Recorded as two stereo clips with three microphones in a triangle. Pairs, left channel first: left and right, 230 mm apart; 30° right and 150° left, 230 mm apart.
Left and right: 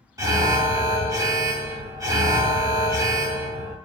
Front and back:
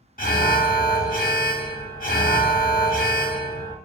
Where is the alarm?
25° right, 0.7 m.